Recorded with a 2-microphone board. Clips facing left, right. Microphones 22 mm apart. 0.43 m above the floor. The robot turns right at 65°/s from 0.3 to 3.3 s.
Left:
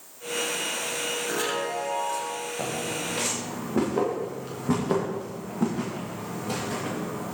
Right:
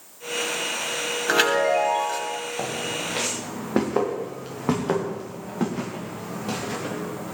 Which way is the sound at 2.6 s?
35° right (ahead or behind).